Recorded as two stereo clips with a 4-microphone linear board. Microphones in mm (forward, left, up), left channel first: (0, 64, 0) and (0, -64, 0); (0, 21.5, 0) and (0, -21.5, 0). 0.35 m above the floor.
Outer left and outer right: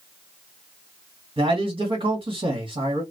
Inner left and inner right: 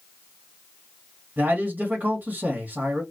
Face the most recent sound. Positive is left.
turn(degrees=-45)  # may be behind; listen again after turning